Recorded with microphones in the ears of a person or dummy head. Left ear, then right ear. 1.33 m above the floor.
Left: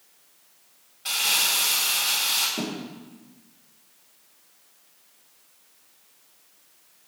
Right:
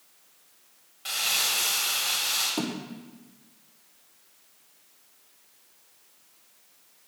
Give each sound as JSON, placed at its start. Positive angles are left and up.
{"t": 1.1, "sound": "crumpling", "side_deg": -5, "distance_m": 1.9}
{"t": 2.6, "sound": "a thud", "side_deg": -50, "distance_m": 1.2}